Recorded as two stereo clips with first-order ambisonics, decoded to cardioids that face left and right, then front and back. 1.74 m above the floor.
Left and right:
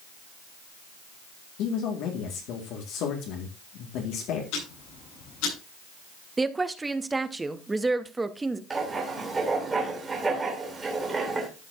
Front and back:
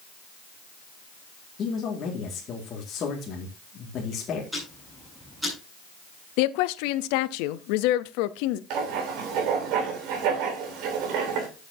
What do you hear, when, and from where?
1.6 s a man speaking: 60° left, 2 m
4.5 s ticking: 95° left, 7.5 m
6.4 s a woman speaking: 10° right, 0.6 m
8.7 s writing: 165° right, 3 m